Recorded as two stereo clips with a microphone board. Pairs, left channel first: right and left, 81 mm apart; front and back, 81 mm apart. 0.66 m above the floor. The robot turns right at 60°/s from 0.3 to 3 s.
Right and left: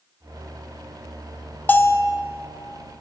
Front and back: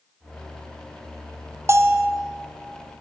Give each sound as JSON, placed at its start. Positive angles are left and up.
{"t": 1.7, "sound": "a bell", "azimuth_deg": -150, "distance_m": 0.6}